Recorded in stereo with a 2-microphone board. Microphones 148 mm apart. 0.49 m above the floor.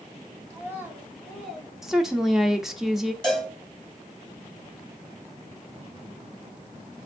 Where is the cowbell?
5° left (ahead or behind), 3.5 m.